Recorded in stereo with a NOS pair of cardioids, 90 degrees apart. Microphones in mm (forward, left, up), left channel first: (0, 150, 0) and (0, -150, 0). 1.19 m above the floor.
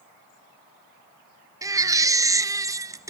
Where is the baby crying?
10° right, 0.5 m.